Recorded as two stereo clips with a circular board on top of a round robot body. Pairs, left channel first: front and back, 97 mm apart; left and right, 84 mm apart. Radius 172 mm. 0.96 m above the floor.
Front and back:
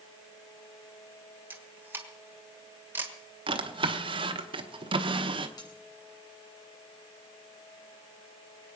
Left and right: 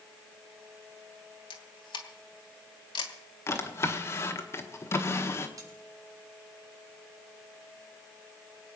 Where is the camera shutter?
110° left, 1.4 m.